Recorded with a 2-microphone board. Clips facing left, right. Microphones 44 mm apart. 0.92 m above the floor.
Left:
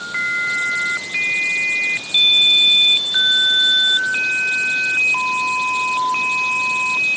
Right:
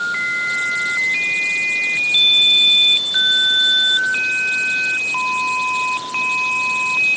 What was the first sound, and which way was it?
Only background noise.